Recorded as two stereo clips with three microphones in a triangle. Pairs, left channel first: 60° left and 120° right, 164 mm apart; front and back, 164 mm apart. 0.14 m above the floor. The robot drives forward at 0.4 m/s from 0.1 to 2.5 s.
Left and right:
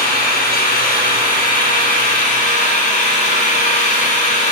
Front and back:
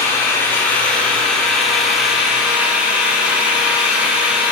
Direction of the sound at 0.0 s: 75° left.